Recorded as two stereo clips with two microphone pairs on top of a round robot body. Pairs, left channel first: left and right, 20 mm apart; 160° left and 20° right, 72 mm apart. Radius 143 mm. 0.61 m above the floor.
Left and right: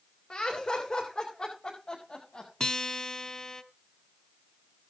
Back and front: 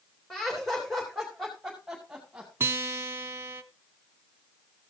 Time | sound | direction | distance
0.3 | laughter | 85° left | 4.5 m
2.6 | a guitar | 40° left | 1.1 m